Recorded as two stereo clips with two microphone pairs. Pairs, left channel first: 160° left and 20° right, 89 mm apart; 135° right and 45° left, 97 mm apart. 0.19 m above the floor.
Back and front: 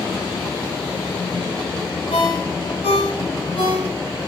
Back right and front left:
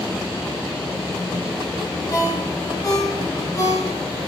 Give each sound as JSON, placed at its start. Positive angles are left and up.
{"t": 2.1, "sound": "a ringtone", "azimuth_deg": 175, "distance_m": 4.0}